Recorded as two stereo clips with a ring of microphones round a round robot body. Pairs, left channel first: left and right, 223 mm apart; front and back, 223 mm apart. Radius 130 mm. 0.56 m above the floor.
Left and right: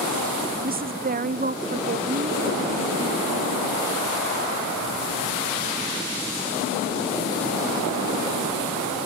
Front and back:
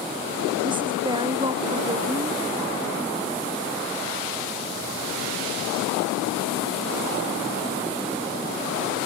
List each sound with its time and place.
0.6 s a woman speaking: 120° right